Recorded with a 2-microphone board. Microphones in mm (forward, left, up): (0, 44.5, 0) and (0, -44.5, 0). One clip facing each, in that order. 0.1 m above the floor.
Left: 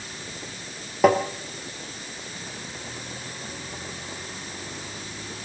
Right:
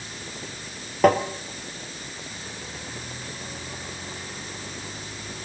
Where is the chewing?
I don't hear chewing.